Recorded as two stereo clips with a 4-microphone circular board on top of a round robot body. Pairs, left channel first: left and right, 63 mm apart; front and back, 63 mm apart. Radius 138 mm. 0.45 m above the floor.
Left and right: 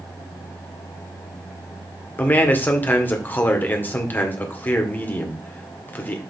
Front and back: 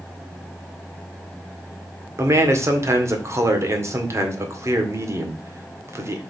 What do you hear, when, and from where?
2.2 s a man speaking: 150° left, 2 m